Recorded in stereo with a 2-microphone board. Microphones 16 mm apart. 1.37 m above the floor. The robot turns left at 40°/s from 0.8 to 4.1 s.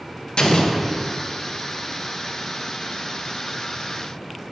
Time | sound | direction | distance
0.4 | an explosion | 60° left (ahead or behind) | 0.6 m